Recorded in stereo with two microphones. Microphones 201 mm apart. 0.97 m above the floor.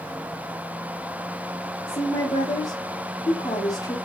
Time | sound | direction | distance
1.9 | a woman speaking | 15° left (ahead or behind) | 1.0 m